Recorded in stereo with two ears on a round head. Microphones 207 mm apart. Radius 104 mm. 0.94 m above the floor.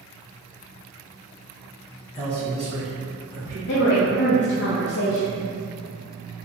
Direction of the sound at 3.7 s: 55° left (ahead or behind).